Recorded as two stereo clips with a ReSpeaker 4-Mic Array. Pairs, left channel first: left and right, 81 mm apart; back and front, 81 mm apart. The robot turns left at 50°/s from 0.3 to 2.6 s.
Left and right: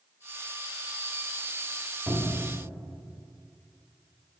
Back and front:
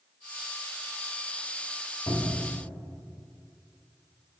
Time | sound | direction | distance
2.1 | a cupboard door | 170° left | 0.7 m